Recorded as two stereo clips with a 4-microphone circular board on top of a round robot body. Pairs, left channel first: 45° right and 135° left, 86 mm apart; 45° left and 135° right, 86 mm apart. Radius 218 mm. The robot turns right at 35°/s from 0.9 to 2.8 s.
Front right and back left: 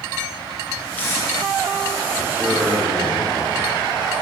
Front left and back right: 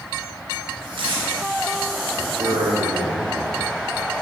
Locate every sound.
1.0 s tape being pulled: 115° right, 0.9 m; by 1.2 s 105° right, 0.9 m
2.4 s a man speaking: 145° right, 2.5 m; by 3.7 s 130° right, 2.5 m